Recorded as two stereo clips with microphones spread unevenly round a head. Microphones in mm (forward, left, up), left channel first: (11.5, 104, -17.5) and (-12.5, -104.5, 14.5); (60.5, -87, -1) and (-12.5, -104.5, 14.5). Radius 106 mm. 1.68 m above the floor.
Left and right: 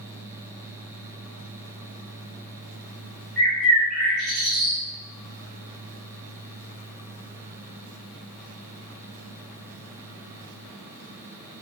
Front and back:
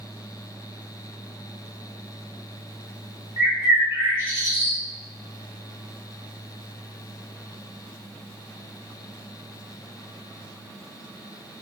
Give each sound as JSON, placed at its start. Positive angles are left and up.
{"t": 3.4, "sound": "a bird", "azimuth_deg": 180, "distance_m": 0.7}